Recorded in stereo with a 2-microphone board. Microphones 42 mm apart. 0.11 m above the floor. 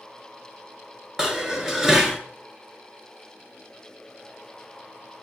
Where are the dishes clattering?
15° right (ahead or behind), 1.0 m.